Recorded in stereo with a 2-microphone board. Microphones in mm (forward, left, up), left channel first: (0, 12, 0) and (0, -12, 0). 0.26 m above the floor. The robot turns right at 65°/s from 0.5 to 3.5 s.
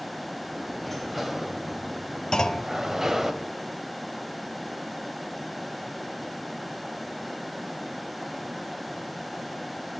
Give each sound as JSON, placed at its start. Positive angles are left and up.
{"t": 0.8, "sound": "a sliding door", "side_deg": 5, "distance_m": 1.6}
{"t": 2.3, "sound": "a clunk", "side_deg": 30, "distance_m": 0.9}